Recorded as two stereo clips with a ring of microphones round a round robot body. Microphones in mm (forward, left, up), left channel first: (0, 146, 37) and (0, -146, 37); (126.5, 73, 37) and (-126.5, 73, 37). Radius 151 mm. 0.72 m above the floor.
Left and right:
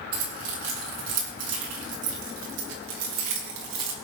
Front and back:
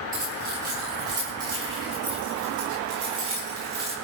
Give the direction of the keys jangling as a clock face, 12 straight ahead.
3 o'clock.